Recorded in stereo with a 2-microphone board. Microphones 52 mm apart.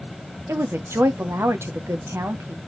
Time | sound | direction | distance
0.5 | a woman speaking | 50° right (ahead or behind) | 0.8 m